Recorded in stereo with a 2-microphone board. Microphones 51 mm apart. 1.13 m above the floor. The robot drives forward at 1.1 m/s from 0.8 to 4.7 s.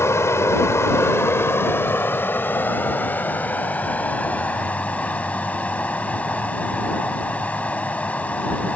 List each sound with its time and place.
0.0 s running water: 60° left (ahead or behind); by 8.8 s 25° left (ahead or behind)